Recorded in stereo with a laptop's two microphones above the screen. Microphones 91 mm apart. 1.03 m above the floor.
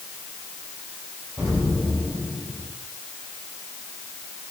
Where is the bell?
No bell in this recording.